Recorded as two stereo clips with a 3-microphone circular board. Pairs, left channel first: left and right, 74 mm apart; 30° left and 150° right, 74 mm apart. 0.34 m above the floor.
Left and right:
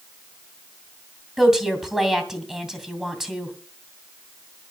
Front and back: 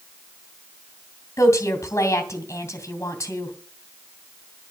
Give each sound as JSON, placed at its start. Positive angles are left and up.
{"t": 1.4, "sound": "a woman speaking", "azimuth_deg": -5, "distance_m": 2.5}